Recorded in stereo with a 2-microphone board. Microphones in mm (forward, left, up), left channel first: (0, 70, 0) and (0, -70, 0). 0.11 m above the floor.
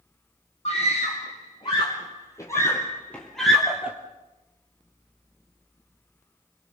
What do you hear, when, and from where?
0.7 s a scream: 40° left (ahead or behind), 3.5 m; by 4.0 s 10° right (ahead or behind), 2 m